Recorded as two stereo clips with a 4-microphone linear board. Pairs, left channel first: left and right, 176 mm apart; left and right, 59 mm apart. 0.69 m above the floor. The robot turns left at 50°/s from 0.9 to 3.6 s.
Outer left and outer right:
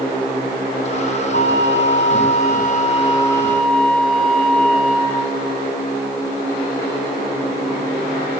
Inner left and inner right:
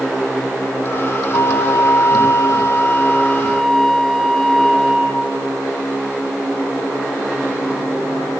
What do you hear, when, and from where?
1.3 s a flute: 115° left, 1.3 m; by 5.3 s 5° left, 1.3 m